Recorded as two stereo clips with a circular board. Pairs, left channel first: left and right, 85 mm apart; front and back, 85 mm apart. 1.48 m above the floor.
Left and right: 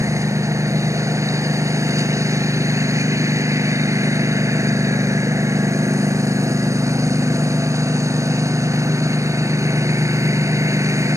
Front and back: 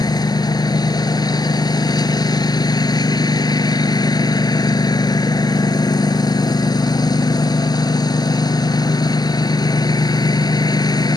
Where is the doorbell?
I don't hear a doorbell.